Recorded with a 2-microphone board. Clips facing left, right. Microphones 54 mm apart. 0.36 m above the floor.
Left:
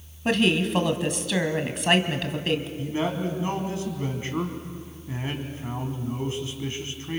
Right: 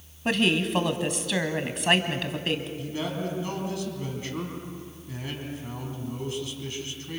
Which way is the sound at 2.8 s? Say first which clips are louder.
Left 4 dB; 30° left (ahead or behind).